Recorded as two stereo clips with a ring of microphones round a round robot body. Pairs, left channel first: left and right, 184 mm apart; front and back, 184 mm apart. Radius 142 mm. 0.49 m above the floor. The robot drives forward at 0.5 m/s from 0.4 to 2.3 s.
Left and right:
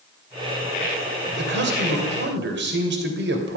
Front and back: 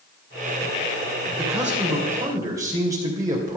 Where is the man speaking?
95° right, 2.5 m; by 3.6 s 105° right, 2.5 m.